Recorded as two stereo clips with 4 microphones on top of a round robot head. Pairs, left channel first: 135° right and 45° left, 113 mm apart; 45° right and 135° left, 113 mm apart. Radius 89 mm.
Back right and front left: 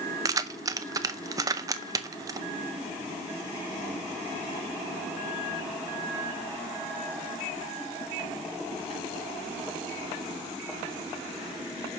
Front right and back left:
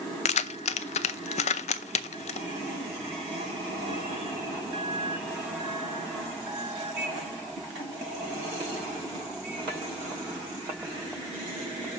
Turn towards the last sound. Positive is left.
turn(degrees=-15)